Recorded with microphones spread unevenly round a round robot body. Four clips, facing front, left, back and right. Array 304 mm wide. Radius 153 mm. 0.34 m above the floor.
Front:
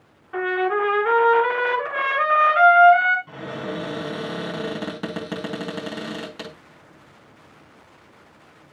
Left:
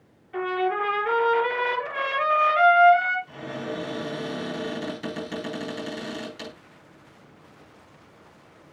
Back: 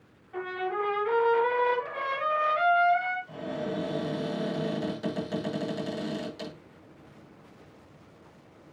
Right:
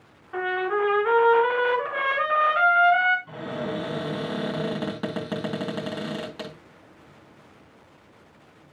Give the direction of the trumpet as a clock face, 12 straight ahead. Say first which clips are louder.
Even, front 9 dB; 1 o'clock.